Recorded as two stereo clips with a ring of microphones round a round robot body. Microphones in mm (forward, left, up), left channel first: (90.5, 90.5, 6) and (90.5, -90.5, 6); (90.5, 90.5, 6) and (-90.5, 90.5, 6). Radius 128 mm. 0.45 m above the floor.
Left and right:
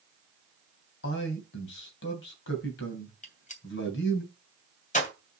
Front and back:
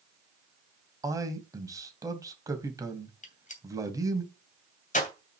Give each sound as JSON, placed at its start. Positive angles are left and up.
{"t": 1.0, "sound": "a man speaking", "azimuth_deg": 110, "distance_m": 3.0}
{"t": 3.2, "sound": "a gunshot", "azimuth_deg": 45, "distance_m": 2.5}